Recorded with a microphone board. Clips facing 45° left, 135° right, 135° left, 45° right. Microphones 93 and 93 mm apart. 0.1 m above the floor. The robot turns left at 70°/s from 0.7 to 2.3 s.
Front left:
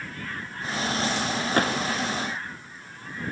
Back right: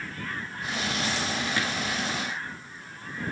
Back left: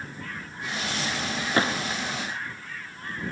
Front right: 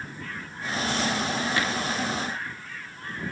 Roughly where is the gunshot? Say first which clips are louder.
Front left 5 dB, back left 2 dB; left.